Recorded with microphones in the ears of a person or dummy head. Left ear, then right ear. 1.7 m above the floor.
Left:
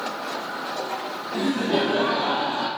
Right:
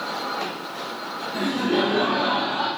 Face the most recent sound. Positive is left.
turn(degrees=70)  # may be behind; listen again after turning